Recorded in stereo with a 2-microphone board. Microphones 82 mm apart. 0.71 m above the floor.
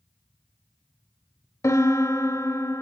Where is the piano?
40° left (ahead or behind), 0.5 m.